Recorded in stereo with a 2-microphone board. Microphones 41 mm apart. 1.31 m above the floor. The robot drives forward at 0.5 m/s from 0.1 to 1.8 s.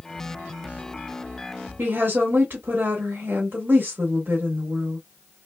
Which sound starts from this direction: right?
A woman speaking, at 1.8 s.